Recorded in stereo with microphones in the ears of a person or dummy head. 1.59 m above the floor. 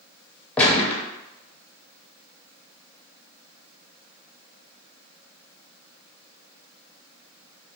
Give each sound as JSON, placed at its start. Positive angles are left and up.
{"t": 0.6, "sound": "a gunshot", "side_deg": 10, "distance_m": 0.7}